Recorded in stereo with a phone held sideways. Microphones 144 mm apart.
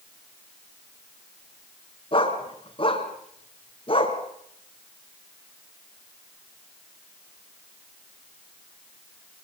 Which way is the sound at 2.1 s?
35° left (ahead or behind).